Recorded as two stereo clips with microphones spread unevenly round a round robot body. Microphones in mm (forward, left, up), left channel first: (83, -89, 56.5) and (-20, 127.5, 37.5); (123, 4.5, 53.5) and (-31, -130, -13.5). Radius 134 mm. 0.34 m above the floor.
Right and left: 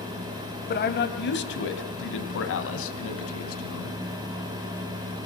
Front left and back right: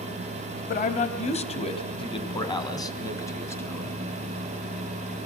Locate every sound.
0.7 s a man speaking: 15° right, 2.5 m; by 4.0 s 45° right, 4 m